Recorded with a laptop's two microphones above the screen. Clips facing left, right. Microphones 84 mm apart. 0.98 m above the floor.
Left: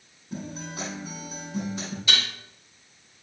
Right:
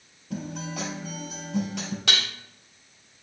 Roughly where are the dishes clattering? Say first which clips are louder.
Even; right.